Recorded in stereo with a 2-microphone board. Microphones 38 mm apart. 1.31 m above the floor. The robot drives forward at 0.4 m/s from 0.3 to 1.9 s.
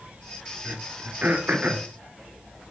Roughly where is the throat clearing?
Right.